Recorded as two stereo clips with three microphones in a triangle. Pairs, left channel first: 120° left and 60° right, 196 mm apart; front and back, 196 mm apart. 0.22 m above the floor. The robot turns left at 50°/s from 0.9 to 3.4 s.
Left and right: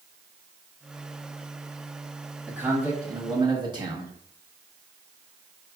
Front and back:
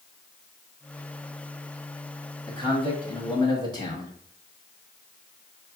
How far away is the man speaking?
About 1.2 m.